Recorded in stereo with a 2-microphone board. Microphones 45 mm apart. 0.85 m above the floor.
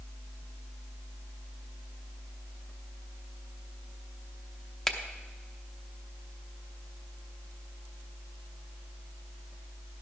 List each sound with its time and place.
4.9 s a finger snap: 10° left (ahead or behind), 0.7 m